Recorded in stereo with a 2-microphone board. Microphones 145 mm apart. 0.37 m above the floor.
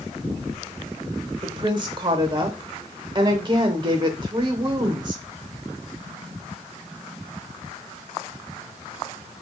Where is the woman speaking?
35° right (ahead or behind), 0.9 m.